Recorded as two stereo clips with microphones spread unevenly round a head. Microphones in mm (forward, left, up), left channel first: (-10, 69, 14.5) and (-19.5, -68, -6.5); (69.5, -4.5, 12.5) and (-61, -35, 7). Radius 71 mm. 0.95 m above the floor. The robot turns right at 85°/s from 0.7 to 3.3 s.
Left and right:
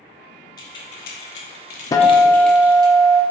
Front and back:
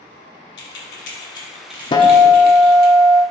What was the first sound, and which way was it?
Keys jangling, 20° left.